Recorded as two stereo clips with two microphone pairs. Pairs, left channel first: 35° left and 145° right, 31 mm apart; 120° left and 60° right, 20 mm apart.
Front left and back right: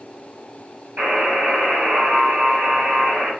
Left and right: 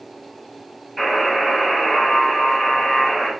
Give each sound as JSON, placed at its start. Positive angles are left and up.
{"t": 1.0, "sound": "a buzzer", "azimuth_deg": -150, "distance_m": 2.0}